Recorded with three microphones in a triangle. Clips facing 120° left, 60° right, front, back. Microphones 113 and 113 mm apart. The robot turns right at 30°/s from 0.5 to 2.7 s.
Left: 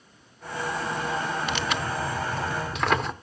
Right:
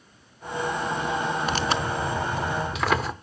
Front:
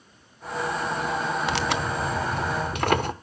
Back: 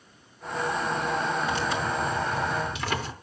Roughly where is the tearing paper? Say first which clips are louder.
Right 3 dB, front 1 dB; ahead.